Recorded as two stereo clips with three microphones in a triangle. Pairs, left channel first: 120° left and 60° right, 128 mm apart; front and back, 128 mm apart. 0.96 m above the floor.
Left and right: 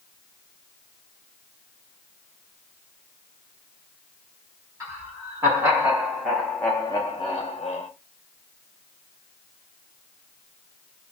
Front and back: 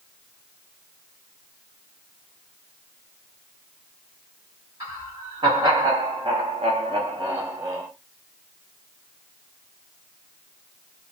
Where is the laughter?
125° right, 1.3 m; by 7.9 s 105° left, 0.7 m.